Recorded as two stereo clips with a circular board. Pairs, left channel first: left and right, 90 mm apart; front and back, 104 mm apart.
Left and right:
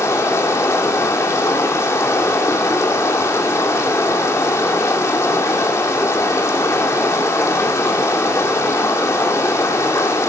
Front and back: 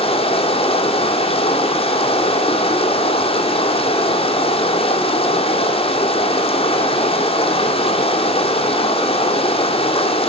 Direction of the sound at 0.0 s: 30° left.